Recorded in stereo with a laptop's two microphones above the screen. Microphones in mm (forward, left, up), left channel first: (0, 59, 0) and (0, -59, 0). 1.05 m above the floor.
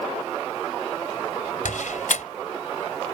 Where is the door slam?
90° left.